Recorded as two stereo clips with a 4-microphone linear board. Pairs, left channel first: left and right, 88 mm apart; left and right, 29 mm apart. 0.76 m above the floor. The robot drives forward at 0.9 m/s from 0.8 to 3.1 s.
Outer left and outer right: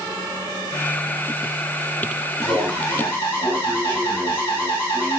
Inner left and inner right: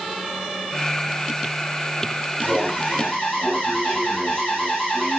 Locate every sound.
2.4 s an alarm: 35° left (ahead or behind), 5 m; by 5.2 s 30° left (ahead or behind), 5.5 m